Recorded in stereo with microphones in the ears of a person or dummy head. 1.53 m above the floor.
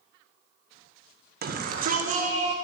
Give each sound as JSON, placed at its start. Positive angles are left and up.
{"t": 1.4, "sound": "a shout", "side_deg": -50, "distance_m": 1.5}